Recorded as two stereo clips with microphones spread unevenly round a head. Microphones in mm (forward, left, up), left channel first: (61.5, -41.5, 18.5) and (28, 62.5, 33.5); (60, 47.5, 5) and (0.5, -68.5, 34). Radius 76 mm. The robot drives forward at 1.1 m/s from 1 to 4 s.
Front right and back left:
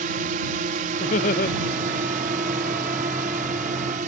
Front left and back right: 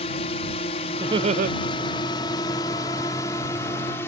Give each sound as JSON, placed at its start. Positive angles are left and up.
{"t": 0.0, "sound": "a drone", "azimuth_deg": 120}
{"t": 1.0, "sound": "laughter", "azimuth_deg": -55}